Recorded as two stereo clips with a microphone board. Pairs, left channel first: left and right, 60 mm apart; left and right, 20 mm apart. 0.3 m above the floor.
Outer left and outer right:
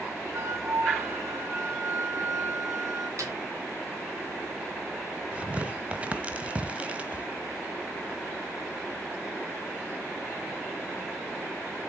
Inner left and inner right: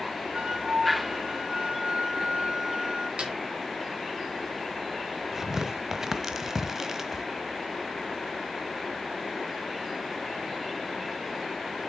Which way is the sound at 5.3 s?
20° right (ahead or behind).